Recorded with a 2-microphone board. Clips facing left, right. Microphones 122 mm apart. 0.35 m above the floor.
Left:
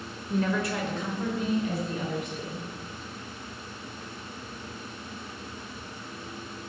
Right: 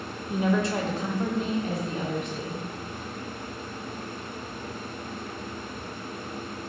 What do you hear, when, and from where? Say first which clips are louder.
0.3 s a woman speaking: right 3 dB; 5° right (ahead or behind), 0.8 m; by 2.6 s 65° right (ahead or behind), 2.5 m